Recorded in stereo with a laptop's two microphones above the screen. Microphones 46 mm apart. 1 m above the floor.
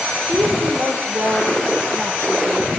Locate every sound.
0.3 s a woman speaking: 80° right, 3.5 m